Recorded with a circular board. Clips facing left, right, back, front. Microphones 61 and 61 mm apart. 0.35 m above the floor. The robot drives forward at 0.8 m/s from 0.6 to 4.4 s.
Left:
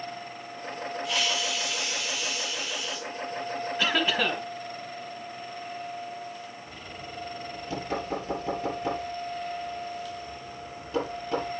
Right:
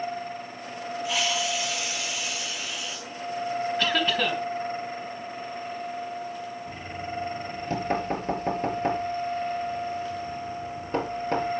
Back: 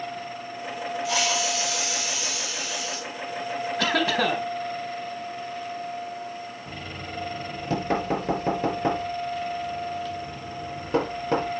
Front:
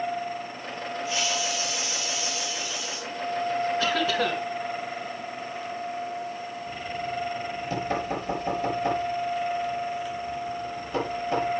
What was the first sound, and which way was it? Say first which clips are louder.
A hiss: right 3 dB, back 3 dB; straight behind.